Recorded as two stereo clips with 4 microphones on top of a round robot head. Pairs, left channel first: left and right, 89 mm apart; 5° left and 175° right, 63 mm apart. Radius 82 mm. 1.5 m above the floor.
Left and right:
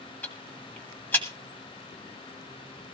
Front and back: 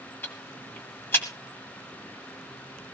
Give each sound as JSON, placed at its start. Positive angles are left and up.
{"t": 0.2, "sound": "ticking", "azimuth_deg": 35, "distance_m": 1.5}